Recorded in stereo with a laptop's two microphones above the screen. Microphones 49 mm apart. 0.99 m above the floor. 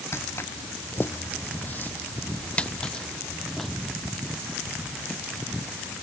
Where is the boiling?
I don't hear boiling.